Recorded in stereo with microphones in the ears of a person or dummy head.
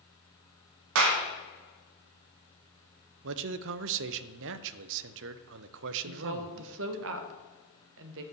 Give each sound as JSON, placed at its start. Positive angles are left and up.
{"t": 0.9, "sound": "a clap", "side_deg": -75, "distance_m": 1.6}
{"t": 3.2, "sound": "a man speaking", "side_deg": -60, "distance_m": 0.7}
{"t": 6.0, "sound": "a woman speaking", "side_deg": -60, "distance_m": 1.4}